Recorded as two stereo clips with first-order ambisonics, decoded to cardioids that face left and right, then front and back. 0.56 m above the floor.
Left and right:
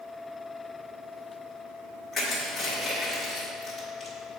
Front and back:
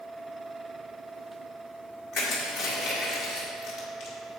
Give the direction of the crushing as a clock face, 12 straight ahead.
12 o'clock.